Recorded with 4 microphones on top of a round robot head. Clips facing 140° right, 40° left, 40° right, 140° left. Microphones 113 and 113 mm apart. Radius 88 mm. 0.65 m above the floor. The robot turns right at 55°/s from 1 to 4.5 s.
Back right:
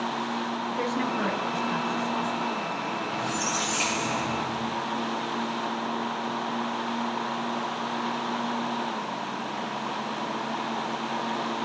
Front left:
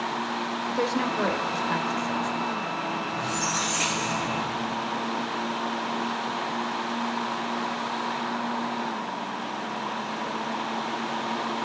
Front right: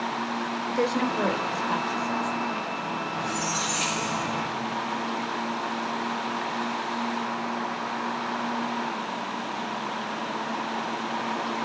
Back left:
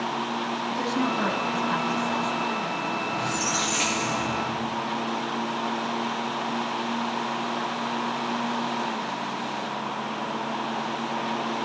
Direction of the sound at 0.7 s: 15° right.